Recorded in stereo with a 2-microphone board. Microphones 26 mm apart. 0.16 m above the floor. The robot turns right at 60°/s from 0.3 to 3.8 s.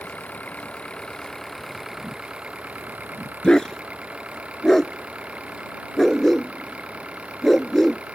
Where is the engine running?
105° left; by 8.2 s 45° right.